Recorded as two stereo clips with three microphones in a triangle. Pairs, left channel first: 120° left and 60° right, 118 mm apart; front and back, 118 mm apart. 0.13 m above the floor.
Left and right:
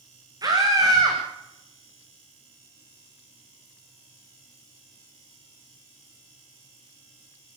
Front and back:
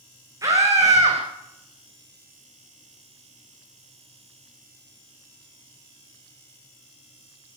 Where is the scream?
120° right, 9 m.